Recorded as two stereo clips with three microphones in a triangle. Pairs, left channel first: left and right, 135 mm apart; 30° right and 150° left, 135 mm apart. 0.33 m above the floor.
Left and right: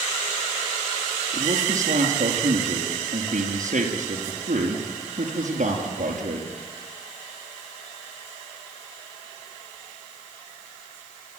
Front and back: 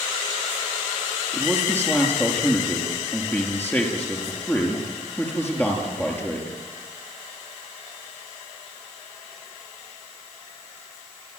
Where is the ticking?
I don't hear ticking.